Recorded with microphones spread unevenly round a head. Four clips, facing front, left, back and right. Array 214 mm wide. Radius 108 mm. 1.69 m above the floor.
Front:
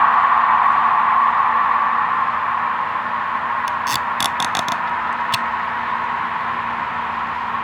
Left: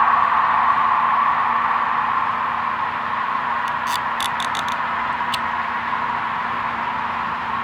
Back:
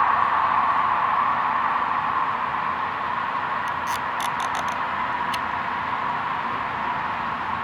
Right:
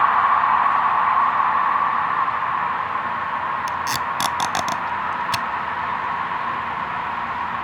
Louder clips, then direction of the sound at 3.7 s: Left 2 dB, front 5 dB; 45° right.